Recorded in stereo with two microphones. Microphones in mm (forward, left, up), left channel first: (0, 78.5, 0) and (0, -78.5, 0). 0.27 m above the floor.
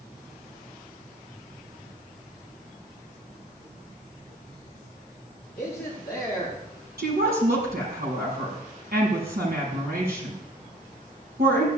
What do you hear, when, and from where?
5.6 s a man speaking: 5° left (ahead or behind), 7.5 m; by 6.6 s 10° left (ahead or behind), 6.5 m
7.0 s a woman speaking: 80° right, 6 m